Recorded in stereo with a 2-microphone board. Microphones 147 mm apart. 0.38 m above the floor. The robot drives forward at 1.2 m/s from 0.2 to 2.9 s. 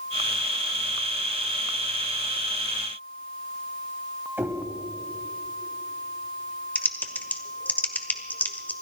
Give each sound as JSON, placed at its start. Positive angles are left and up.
{"t": 4.4, "sound": "knocking", "side_deg": -15, "distance_m": 2.0}
{"t": 6.8, "sound": "typing on a keyboard", "side_deg": 10, "distance_m": 1.2}